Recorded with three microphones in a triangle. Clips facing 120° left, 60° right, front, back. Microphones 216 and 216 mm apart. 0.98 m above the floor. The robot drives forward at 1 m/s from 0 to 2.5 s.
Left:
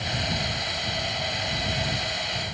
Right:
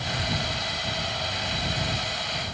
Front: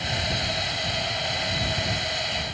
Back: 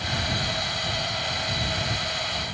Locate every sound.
Only background noise.